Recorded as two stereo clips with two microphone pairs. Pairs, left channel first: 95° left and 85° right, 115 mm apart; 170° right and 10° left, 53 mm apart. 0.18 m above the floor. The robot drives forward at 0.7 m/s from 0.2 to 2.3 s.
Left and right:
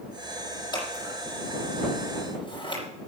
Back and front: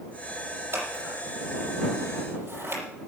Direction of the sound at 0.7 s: 40° left.